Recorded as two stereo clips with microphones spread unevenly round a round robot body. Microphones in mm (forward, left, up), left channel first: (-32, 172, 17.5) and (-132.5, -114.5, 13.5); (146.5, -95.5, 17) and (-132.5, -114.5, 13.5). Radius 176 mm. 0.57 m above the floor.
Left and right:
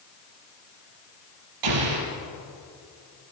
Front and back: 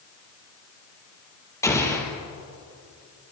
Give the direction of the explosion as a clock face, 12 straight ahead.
3 o'clock.